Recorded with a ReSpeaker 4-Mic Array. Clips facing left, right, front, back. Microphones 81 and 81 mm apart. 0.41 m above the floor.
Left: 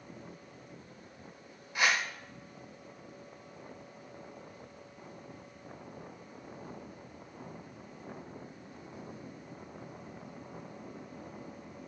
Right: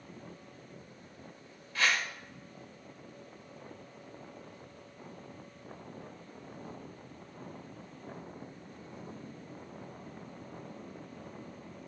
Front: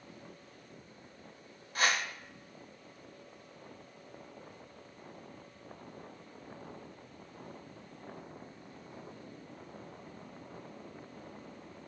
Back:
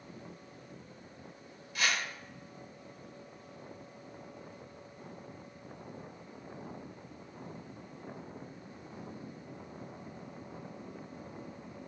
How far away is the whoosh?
About 1.5 m.